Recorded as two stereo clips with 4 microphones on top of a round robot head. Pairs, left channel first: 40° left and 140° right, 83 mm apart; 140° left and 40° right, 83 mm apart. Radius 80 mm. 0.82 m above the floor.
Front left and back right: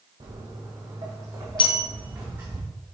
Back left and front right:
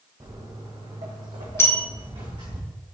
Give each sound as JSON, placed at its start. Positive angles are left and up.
{"t": 0.2, "sound": "footsteps", "azimuth_deg": -100, "distance_m": 1.5}
{"t": 1.6, "sound": "a bell", "azimuth_deg": 75, "distance_m": 0.7}